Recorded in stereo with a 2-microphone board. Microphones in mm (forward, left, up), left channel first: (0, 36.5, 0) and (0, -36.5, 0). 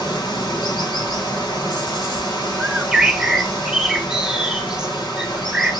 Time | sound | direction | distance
0.0 | running water | 75° left (ahead or behind) | 1.3 m
2.6 | a bird | 10° right (ahead or behind) | 0.6 m